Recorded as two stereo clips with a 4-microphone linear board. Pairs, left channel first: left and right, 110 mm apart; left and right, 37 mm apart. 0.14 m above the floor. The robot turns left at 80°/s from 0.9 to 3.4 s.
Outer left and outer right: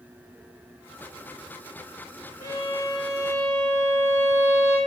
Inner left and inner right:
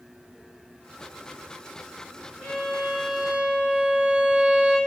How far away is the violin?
About 3 m.